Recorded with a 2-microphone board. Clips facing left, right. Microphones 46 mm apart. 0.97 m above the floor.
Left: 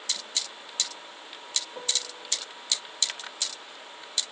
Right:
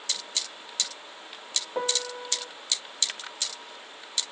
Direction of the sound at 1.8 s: 40° right (ahead or behind).